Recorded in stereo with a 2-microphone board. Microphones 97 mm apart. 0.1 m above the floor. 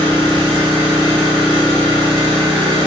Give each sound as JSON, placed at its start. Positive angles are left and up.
{"t": 0.0, "sound": "an engine running", "side_deg": -70, "distance_m": 1.3}